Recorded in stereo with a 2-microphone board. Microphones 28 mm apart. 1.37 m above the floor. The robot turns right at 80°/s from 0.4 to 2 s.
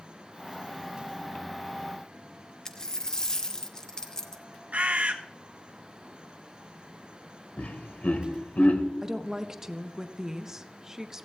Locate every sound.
2.6 s a dropped coin: 25° left (ahead or behind), 0.9 m
4.7 s a bird: 60° right (ahead or behind), 1.4 m
7.6 s laughter: 60° left (ahead or behind), 1.8 m
9.0 s a woman speaking: 20° right (ahead or behind), 0.9 m